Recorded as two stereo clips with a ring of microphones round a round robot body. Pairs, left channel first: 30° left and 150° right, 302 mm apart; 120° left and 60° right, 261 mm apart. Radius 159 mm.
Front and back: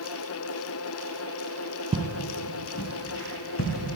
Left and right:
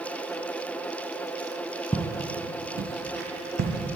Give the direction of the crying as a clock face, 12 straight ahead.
I don't hear crying.